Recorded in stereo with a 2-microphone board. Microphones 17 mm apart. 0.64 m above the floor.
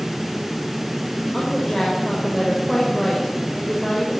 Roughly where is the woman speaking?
Centre.